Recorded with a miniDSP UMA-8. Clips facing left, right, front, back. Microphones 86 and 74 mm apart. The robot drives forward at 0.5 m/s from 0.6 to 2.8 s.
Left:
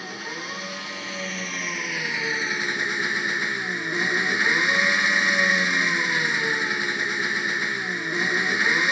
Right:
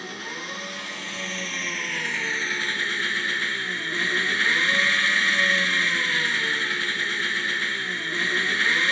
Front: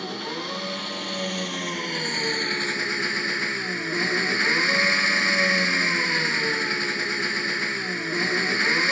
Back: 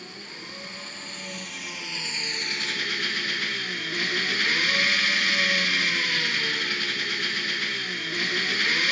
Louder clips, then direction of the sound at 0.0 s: Left 1 dB, front 11 dB; 5° left.